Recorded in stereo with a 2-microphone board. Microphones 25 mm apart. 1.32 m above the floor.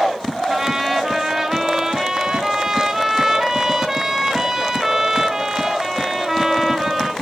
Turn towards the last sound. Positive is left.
turn(degrees=-15)  # may be behind; listen again after turning